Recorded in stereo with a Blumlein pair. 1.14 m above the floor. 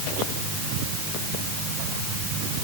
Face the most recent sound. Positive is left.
No sound to turn to.